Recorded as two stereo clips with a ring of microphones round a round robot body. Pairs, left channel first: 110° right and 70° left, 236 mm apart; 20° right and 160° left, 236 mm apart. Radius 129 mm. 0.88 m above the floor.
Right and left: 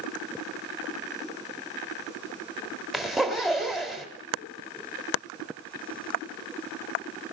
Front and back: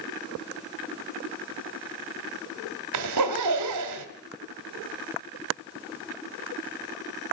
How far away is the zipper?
About 2.5 m.